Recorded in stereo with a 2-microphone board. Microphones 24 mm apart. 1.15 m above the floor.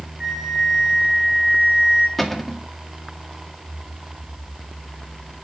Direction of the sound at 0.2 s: 25° right (ahead or behind).